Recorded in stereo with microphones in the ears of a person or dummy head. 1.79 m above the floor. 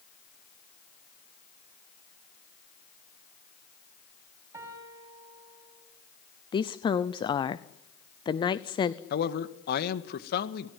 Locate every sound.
4.5 s a piano: 20° right (ahead or behind), 4.5 m
6.5 s a woman speaking: 20° left (ahead or behind), 0.7 m
9.1 s a man speaking: 55° left (ahead or behind), 1.8 m